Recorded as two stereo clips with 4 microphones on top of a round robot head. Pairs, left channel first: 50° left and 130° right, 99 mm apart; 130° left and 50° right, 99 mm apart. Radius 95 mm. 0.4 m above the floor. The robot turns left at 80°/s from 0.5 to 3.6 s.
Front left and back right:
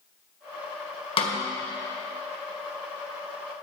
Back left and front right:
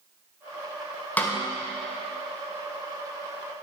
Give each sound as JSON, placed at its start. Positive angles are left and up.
{"t": 1.2, "sound": "a snare drum", "azimuth_deg": 55, "distance_m": 1.6}